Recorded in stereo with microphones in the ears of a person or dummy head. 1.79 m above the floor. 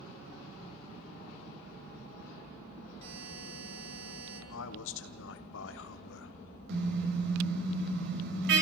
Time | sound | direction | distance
3.0 | a buzzer | 35° right (ahead or behind) | 7 m
4.5 | a man speaking | 75° left (ahead or behind) | 1.4 m
6.7 | a car horn | 65° right (ahead or behind) | 3.5 m